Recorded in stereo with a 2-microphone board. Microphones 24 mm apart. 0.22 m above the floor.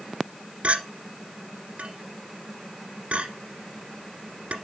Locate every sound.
0.6 s a clink: 70° right (ahead or behind), 1.5 m